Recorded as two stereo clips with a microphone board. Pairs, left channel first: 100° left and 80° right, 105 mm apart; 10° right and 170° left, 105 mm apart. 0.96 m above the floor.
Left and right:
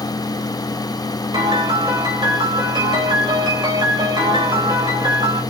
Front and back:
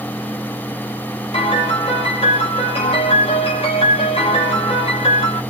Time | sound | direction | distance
1.3 | a piano | 35° right | 3.5 m